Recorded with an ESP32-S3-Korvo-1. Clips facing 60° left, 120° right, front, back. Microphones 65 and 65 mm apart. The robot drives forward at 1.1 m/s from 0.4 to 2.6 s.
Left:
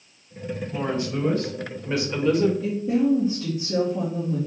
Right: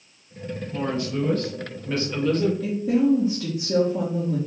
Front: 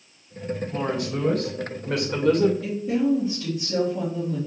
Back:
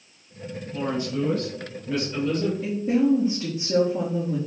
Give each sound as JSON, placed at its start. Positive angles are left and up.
{"t": 0.7, "sound": "a woman speaking", "azimuth_deg": -10, "distance_m": 3.5}
{"t": 2.6, "sound": "a woman speaking", "azimuth_deg": -130, "distance_m": 3.0}